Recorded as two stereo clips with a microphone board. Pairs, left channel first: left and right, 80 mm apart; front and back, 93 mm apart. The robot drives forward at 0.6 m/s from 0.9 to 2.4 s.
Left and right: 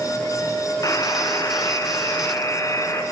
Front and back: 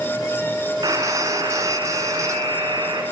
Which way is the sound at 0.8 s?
135° left.